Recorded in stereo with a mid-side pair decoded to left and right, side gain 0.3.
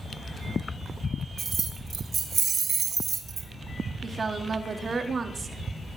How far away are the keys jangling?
About 4.5 m.